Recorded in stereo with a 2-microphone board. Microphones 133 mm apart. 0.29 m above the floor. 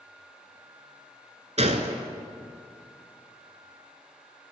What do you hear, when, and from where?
1.6 s a gunshot: 55° right (ahead or behind), 0.9 m